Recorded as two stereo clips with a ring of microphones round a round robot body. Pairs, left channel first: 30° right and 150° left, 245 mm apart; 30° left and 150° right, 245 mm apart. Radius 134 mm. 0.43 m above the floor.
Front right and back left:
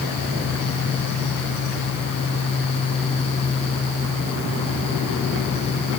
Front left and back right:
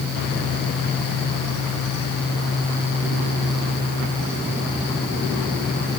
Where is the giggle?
No giggle in this recording.